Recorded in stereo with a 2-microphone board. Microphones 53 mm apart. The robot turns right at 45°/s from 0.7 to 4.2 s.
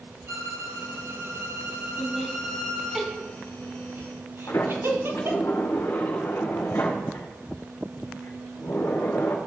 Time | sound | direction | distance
0.3 | a violin | 80° right | 2 m
2.0 | laughter | 30° left (ahead or behind) | 2 m
4.5 | a sliding door | 60° left (ahead or behind) | 3 m